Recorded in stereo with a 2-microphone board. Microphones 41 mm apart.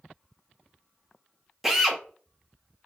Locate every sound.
1.6 s a drill: 5° right (ahead or behind), 0.7 m